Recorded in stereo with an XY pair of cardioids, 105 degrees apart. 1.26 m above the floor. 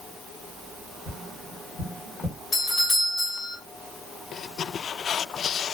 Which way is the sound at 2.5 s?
40° left.